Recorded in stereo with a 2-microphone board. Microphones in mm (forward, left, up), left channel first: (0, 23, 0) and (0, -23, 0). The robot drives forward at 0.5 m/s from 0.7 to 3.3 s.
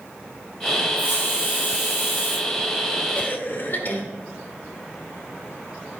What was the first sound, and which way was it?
A hiss, 60° left (ahead or behind).